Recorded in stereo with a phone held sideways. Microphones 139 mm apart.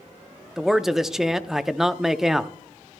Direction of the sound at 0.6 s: 5° right (ahead or behind).